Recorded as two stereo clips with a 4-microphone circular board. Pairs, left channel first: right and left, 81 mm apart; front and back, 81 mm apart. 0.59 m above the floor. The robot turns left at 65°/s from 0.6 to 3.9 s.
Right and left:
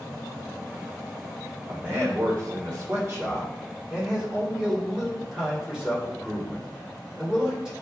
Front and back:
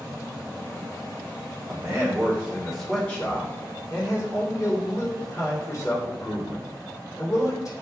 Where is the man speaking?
160° left, 1.4 m; by 7.7 s 15° left, 1.4 m.